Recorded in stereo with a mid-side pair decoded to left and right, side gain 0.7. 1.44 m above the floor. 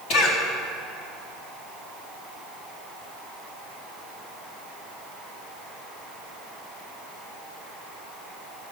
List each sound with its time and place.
0.1 s a cough: 65° left, 3.5 m